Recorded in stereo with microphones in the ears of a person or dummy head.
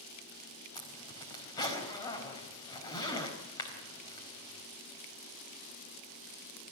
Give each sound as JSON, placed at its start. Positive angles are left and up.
{"t": 0.8, "sound": "a zipper", "side_deg": 15, "distance_m": 4.5}